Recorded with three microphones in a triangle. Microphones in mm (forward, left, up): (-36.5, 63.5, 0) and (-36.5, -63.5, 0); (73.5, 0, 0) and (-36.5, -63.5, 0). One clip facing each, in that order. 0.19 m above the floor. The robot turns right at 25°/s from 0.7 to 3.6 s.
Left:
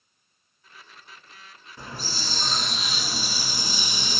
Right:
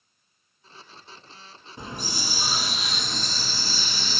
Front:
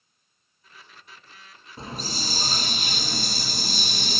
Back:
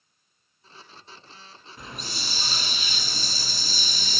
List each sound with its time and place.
1.8 s a hiss: 25° right, 0.8 m; by 4.2 s 20° left, 0.8 m